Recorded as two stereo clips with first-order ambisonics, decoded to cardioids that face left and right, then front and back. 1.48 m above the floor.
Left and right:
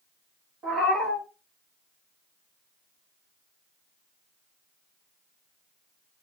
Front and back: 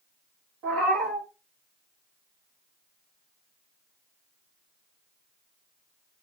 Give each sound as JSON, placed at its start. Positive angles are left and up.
{"t": 0.6, "sound": "a cat meowing", "azimuth_deg": -145, "distance_m": 1.2}